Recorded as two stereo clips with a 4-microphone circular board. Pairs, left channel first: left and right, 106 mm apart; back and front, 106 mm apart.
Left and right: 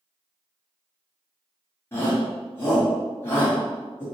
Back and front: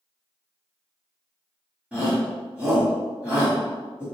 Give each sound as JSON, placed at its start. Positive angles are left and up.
{"t": 1.9, "sound": "a shout", "azimuth_deg": 60, "distance_m": 1.3}